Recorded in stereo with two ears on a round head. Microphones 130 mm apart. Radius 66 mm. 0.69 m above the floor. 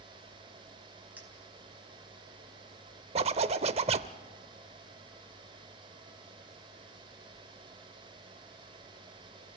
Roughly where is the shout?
I don't hear a shout.